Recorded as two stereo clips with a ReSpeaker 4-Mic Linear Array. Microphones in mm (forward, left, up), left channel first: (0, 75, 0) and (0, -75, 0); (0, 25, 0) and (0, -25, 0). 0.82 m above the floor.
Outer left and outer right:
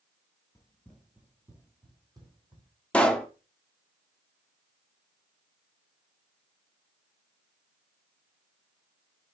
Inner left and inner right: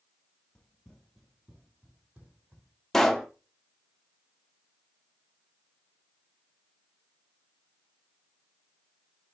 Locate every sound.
0.6 s running footsteps: 20° left (ahead or behind), 0.8 m; by 2.7 s 35° right (ahead or behind), 1.9 m
2.9 s a pop: 10° left (ahead or behind), 0.6 m